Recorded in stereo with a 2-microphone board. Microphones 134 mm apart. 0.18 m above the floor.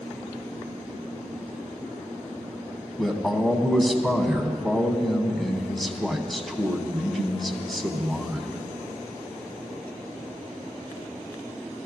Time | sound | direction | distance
3.0 | a man speaking | centre (ahead or behind) | 1.0 m